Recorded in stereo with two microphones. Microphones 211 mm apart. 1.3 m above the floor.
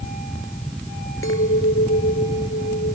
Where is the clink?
80° left.